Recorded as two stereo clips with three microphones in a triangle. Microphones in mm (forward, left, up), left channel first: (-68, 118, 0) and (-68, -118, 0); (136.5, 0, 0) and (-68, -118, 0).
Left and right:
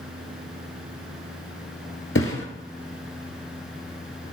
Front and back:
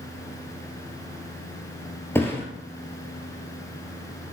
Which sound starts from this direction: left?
A thud, at 2.1 s.